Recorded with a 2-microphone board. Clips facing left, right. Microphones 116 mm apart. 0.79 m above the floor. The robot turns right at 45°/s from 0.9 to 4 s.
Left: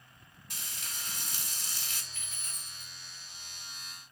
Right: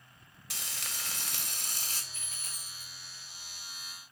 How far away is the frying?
About 0.8 m.